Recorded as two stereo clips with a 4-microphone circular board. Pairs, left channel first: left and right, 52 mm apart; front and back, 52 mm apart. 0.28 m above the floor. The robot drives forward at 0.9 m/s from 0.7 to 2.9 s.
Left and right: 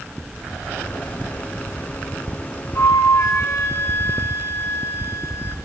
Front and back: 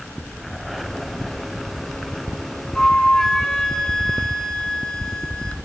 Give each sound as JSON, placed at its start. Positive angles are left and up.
{"t": 2.8, "sound": "a flute", "azimuth_deg": 75, "distance_m": 2.0}